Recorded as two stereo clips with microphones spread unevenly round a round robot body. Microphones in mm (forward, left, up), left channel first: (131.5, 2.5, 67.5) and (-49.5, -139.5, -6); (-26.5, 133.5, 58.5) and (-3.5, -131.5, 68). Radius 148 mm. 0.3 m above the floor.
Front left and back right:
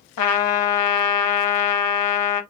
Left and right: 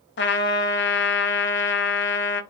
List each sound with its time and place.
0.2 s a trumpet: 45° left, 0.6 m